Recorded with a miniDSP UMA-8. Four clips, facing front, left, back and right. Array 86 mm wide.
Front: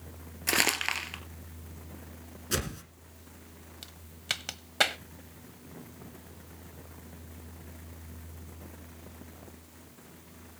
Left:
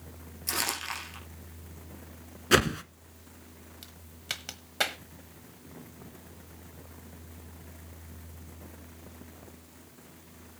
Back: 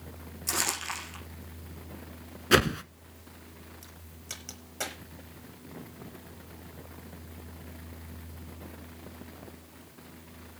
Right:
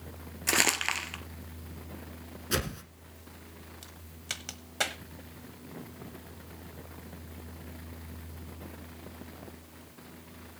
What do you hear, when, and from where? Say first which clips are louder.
0.5 s crumpling: right 5 dB, front 4 dB; 40° right, 2 m
2.5 s a whoosh: left 10 dB, back 12 dB; 140° left, 0.8 m
3.8 s a crack: left 4 dB, front 7 dB; 10° left, 1.1 m